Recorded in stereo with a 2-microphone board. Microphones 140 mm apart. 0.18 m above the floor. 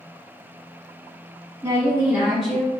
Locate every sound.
1.6 s a woman speaking: 35° right (ahead or behind), 1.2 m; by 2.8 s 15° left (ahead or behind), 1.2 m